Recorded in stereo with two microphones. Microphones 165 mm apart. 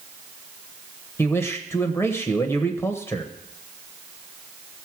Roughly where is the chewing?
No chewing in this recording.